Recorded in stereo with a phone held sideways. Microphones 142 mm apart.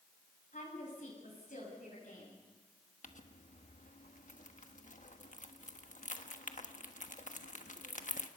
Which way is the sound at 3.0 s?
65° left (ahead or behind).